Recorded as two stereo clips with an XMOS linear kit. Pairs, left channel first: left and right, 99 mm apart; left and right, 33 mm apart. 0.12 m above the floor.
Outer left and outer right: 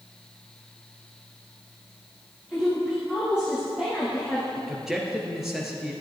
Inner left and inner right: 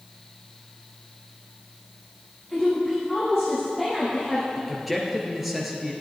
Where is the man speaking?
5° right (ahead or behind), 1.9 m.